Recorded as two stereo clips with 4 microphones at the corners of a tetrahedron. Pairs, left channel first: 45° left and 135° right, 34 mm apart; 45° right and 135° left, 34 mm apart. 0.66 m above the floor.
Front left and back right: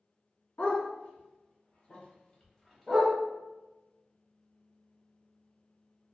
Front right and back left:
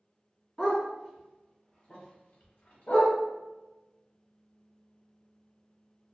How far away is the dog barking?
About 1.5 m.